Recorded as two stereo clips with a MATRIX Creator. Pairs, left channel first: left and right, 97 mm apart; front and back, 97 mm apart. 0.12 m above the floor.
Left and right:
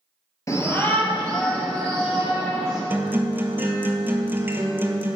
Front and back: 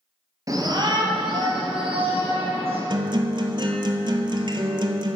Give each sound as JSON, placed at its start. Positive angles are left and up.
{"t": 0.5, "sound": "a shout", "azimuth_deg": 140, "distance_m": 1.7}
{"t": 2.9, "sound": "a guitar", "azimuth_deg": -155, "distance_m": 1.0}